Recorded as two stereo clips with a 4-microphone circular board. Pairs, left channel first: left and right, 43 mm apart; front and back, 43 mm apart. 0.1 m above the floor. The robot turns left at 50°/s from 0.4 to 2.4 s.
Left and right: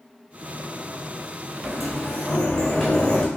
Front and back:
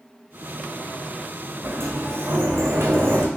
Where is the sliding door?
165° right, 1.3 m; by 3.3 s 155° left, 1.3 m.